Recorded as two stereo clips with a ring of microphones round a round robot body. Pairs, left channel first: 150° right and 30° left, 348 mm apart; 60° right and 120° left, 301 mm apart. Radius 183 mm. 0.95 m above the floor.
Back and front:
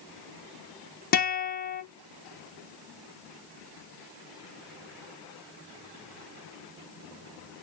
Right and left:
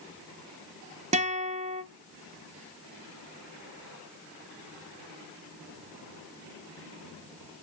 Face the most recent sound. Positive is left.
turn(degrees=170)